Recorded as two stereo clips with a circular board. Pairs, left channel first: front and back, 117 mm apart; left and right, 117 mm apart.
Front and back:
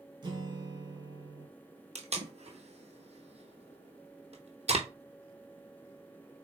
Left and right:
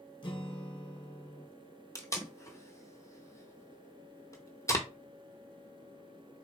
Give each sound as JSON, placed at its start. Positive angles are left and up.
{"t": 0.2, "sound": "a guitar", "azimuth_deg": 135, "distance_m": 0.7}
{"t": 1.9, "sound": "tape being pulled", "azimuth_deg": 155, "distance_m": 0.8}